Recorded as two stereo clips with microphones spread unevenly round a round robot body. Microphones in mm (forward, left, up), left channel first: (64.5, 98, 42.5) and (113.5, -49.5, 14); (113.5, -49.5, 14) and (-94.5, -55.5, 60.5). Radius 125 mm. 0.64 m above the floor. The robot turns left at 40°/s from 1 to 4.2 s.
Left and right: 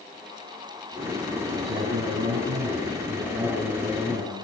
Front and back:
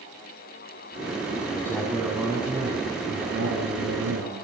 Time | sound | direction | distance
1.5 | a man speaking | 70° right | 7.5 m